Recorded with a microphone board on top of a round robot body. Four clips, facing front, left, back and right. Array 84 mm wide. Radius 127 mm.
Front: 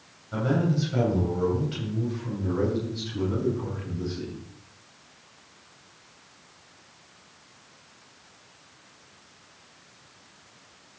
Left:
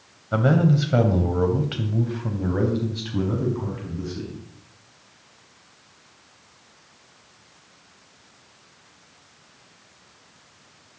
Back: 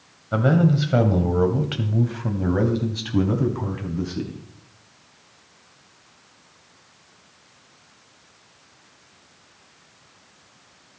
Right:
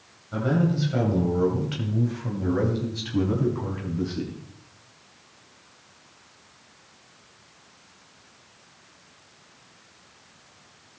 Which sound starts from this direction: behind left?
A man speaking, at 0.3 s.